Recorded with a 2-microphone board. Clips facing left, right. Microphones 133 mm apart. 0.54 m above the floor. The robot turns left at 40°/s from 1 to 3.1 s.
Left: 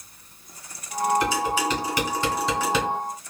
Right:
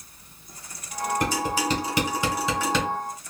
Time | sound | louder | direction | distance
1.2 | dishes clattering | left 2 dB | 55° right (ahead or behind) | 1.7 m